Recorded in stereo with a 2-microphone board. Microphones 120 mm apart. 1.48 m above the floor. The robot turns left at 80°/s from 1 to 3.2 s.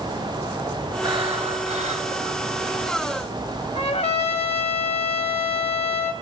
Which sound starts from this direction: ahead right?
Breathing, at 1.0 s.